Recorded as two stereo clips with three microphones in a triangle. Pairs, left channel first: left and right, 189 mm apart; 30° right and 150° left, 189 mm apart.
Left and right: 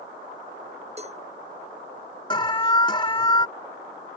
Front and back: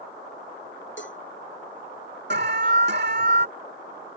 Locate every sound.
1.0 s a cowbell: 35° right
2.3 s an alarm: 150° left